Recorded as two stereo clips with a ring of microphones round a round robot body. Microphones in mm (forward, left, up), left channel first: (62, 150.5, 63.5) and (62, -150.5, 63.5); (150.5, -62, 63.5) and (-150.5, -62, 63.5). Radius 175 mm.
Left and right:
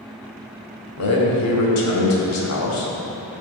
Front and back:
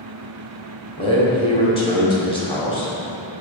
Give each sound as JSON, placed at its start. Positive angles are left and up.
{"t": 1.0, "sound": "a man speaking", "azimuth_deg": 70, "distance_m": 1.5}